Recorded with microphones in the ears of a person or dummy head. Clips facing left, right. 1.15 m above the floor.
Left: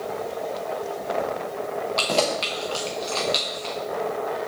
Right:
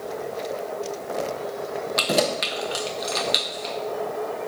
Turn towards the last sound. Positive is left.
turn(degrees=-20)  # may be behind; listen again after turning